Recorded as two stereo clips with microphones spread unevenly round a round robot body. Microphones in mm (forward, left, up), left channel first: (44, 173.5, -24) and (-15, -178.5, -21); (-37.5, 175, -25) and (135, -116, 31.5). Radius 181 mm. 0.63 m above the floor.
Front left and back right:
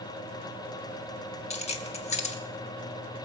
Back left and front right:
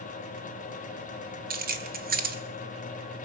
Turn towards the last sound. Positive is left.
turn(degrees=10)